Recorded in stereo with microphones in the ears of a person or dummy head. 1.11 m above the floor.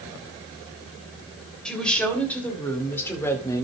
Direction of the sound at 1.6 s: 5° left (ahead or behind).